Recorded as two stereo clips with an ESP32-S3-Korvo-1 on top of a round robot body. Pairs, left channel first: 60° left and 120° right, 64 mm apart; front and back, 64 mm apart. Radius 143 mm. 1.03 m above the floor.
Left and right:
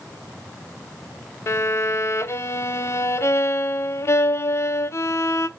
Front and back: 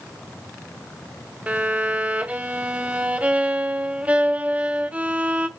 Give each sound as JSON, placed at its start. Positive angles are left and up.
{"t": 1.5, "sound": "a violin", "azimuth_deg": 110, "distance_m": 0.6}